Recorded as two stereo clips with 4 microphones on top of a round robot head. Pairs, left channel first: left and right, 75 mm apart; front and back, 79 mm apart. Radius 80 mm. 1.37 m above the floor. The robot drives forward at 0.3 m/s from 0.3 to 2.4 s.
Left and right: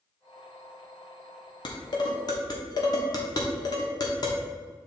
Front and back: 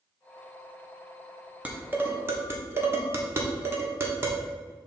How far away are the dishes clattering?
About 0.9 m.